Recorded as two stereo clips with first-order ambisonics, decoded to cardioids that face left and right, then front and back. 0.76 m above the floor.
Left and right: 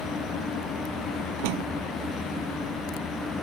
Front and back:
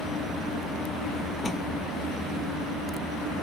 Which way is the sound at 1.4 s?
80° right.